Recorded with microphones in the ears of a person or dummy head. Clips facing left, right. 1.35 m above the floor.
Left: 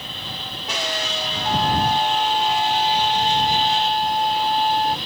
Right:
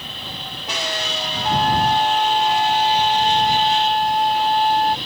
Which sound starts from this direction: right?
A flute, at 1.4 s.